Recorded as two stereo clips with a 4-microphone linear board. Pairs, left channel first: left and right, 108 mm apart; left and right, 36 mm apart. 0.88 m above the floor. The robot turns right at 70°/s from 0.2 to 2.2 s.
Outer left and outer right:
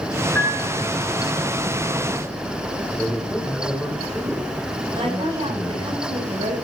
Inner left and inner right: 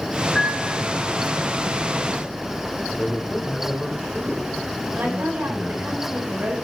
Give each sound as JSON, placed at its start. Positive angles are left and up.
{"t": 0.3, "sound": "a piano", "azimuth_deg": 15, "distance_m": 3.5}
{"t": 3.0, "sound": "a man speaking", "side_deg": 5, "distance_m": 5.0}
{"t": 5.0, "sound": "a woman speaking", "side_deg": -60, "distance_m": 7.0}